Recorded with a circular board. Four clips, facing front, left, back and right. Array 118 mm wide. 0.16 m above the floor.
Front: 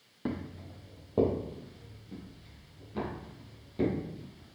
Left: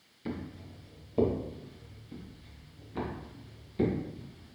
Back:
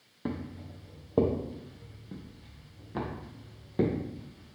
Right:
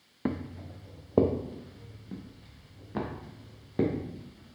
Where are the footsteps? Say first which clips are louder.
Right 5 dB, even; 85° right, 1.1 m; by 4.6 s 125° right, 3.5 m.